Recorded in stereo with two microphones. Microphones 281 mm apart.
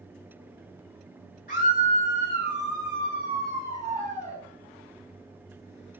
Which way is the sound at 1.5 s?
30° left (ahead or behind).